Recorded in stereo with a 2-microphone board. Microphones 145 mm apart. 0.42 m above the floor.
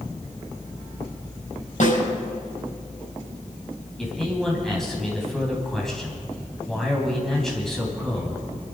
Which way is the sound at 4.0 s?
Centre (ahead or behind).